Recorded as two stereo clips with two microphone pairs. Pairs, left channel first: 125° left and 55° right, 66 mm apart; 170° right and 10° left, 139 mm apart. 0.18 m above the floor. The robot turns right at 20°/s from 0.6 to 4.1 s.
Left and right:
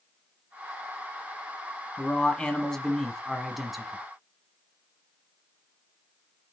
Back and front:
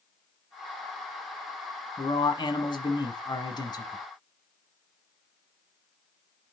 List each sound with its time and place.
2.0 s a man speaking: straight behind, 1.3 m; by 4.0 s 140° right, 1.3 m